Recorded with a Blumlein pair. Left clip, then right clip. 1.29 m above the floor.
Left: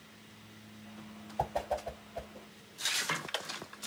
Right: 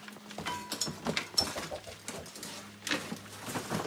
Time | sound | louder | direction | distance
1.4 | a whoosh | left 2 dB | 60° left | 0.7 m